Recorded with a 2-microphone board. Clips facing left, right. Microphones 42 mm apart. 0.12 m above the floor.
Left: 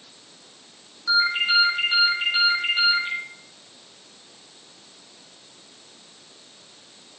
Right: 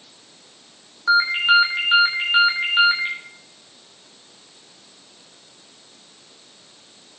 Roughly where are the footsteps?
No footsteps in this recording.